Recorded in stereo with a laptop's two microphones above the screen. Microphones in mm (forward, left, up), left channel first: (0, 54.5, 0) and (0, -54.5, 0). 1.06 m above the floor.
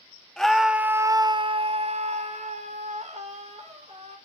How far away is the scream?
About 1.5 m.